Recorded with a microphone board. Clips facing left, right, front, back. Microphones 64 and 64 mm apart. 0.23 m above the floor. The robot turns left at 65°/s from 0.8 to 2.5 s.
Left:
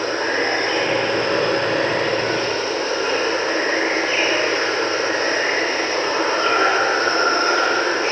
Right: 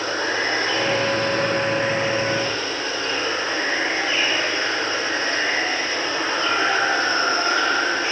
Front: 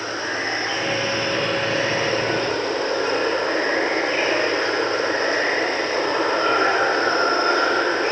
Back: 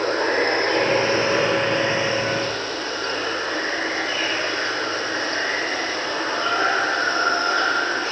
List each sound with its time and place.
0.0 s running water: 140° left, 1.4 m; by 8.1 s 30° left, 1.4 m